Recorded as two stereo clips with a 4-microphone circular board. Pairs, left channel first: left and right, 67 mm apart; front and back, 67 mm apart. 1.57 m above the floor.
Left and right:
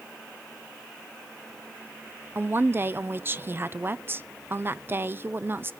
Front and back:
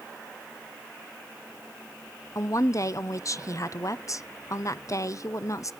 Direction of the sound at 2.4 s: 35° right.